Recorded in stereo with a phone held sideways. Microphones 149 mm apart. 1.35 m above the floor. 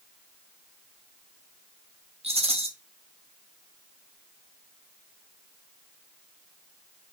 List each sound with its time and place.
2.2 s a rattle: 40° right (ahead or behind), 0.8 m